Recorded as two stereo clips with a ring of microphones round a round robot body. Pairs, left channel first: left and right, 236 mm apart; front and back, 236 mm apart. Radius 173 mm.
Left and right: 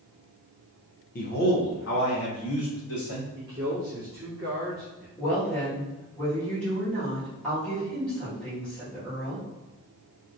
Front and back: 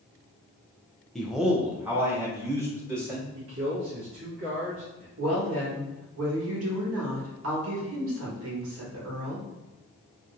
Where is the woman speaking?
175° left, 1.5 m.